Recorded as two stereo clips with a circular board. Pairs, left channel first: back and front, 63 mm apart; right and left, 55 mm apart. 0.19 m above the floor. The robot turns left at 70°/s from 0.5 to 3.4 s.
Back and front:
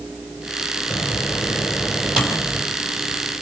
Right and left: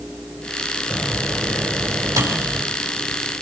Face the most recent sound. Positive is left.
turn(degrees=-5)